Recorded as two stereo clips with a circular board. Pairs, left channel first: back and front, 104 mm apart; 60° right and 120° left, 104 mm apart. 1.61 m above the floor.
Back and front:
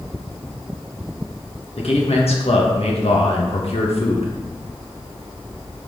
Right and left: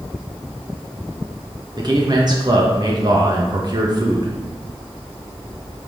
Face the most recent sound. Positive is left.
turn(degrees=165)